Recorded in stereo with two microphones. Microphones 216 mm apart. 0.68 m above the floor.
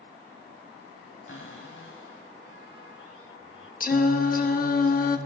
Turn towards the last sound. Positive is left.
turn(degrees=40)  # may be behind; listen again after turning